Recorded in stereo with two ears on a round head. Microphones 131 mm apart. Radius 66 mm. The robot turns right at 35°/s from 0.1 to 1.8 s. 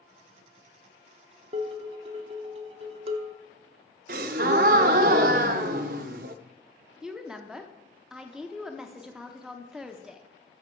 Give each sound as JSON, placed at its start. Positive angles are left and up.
{"t": 1.5, "sound": "dishes clattering", "side_deg": -40, "distance_m": 0.7}
{"t": 4.1, "sound": "a gasp", "side_deg": -65, "distance_m": 0.5}
{"t": 7.0, "sound": "a woman speaking", "side_deg": -5, "distance_m": 0.6}